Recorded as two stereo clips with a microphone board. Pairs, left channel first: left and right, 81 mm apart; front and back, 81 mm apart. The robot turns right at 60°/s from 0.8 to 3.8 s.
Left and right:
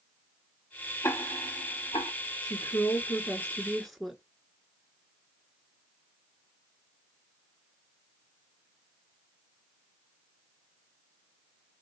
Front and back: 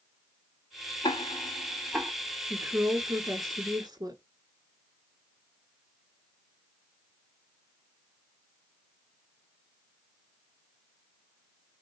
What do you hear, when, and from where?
1.0 s ticking: 30° left, 1.2 m; by 2.1 s 95° left, 1.2 m
2.4 s a woman speaking: 95° left, 1.9 m; by 4.2 s straight behind, 1.9 m